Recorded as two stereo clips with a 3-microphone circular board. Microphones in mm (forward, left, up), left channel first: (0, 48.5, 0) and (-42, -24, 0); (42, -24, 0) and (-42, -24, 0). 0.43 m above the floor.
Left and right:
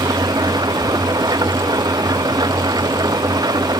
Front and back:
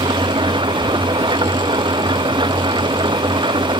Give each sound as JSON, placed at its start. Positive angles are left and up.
{"t": 0.0, "sound": "an engine running", "azimuth_deg": -160}